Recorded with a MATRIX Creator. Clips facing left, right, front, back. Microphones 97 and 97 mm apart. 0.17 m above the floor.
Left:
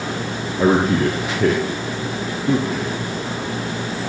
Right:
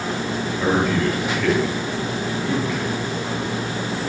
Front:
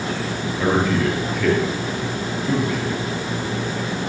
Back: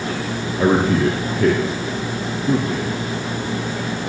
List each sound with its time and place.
0.6 s a man speaking: 135° left, 3.5 m